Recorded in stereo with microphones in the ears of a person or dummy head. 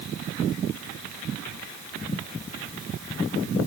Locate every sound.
Only background noise.